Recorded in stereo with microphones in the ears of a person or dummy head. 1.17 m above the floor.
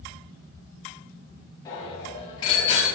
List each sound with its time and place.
1.6 s a bicycle bell: 25° left (ahead or behind), 6 m; by 2.9 s 30° left (ahead or behind), 5.5 m